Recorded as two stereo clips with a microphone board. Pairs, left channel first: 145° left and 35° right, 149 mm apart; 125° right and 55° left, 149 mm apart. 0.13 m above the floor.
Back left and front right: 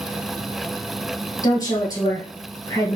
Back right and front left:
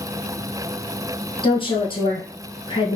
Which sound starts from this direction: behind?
A woman speaking, at 1.4 s.